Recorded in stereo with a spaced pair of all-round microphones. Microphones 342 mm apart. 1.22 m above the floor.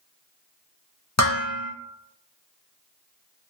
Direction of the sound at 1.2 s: 50° left (ahead or behind).